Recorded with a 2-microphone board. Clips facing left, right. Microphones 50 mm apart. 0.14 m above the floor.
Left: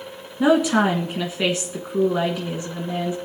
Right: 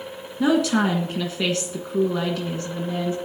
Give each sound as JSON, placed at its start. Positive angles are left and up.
{"t": 0.4, "sound": "a woman speaking", "side_deg": 20, "distance_m": 1.4}